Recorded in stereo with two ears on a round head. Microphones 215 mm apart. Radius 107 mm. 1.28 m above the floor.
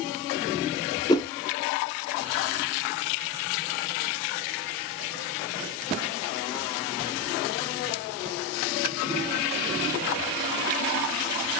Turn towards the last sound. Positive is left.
turn(degrees=15)  # may be behind; listen again after turning